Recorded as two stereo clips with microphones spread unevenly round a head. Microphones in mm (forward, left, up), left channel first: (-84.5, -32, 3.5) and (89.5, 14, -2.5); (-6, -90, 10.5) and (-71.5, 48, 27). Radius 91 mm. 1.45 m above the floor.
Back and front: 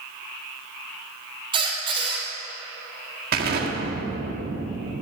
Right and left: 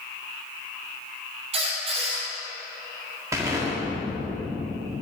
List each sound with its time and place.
1.5 s a squeak: 75° left, 2 m
3.3 s an explosion: 45° left, 1.5 m